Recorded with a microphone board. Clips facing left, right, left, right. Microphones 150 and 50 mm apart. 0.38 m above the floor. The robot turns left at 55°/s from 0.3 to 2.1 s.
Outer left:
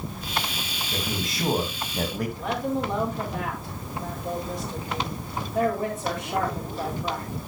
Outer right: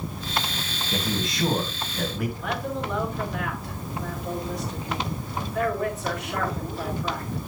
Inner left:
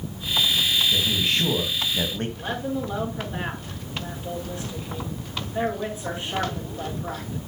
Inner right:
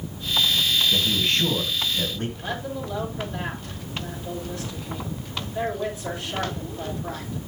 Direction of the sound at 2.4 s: 30° left (ahead or behind).